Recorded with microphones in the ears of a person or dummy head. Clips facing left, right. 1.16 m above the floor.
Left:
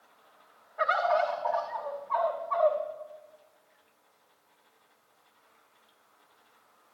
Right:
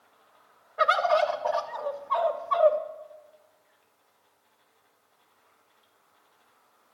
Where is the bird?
45° right (ahead or behind), 0.7 m.